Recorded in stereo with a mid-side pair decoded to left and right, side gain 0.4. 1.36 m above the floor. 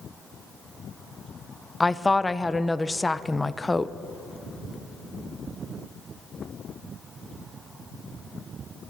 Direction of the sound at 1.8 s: 20° left.